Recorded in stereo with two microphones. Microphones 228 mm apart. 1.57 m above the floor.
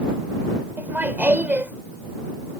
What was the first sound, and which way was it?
Laughter, 10° right (ahead or behind).